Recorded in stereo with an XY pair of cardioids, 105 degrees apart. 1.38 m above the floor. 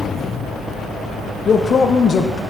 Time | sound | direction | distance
1.4 | a man speaking | 45° left | 0.5 m